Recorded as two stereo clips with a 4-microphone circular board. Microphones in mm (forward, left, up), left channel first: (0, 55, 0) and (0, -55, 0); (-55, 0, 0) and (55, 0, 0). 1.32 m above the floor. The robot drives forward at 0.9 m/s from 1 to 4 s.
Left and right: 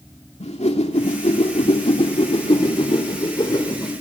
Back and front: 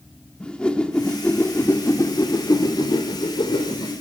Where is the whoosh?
100° left, 2.5 m; by 3.9 s 140° left, 4 m.